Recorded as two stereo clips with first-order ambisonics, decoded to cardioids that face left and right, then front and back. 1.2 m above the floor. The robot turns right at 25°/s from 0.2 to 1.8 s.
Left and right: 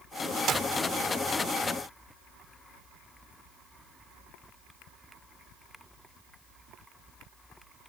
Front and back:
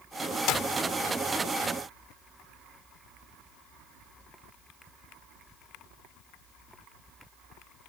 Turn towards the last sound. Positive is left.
turn(degrees=-5)